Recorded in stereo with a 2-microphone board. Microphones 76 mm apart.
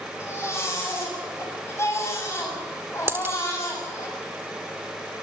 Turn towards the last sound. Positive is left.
turn(degrees=-30)  # may be behind; listen again after turning